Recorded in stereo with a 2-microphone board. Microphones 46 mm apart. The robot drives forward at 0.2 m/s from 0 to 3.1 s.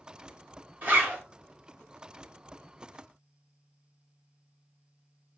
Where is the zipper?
45° right (ahead or behind), 1.4 m; by 1.2 s 40° right (ahead or behind), 1.4 m.